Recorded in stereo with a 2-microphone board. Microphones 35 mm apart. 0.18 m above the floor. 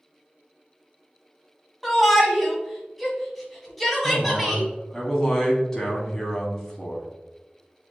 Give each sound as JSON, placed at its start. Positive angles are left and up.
{"t": 1.8, "sound": "a shout", "side_deg": 0, "distance_m": 1.0}
{"t": 4.0, "sound": "a man speaking", "side_deg": 15, "distance_m": 1.1}